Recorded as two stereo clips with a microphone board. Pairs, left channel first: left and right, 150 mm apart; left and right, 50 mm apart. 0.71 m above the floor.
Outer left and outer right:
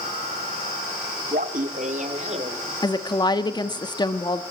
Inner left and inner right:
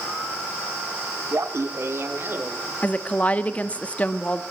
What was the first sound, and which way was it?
Laughter, 65° right (ahead or behind).